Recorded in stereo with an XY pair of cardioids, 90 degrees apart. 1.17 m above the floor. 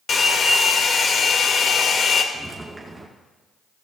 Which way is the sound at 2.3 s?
15° right.